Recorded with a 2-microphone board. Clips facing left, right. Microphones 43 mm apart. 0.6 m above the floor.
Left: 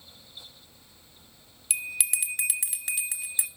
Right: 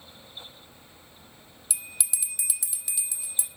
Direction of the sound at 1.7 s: 50° left (ahead or behind).